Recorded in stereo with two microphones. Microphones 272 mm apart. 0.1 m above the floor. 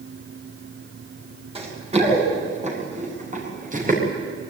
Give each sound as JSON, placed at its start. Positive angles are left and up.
{"t": 1.6, "sound": "running footsteps", "side_deg": -20, "distance_m": 8.5}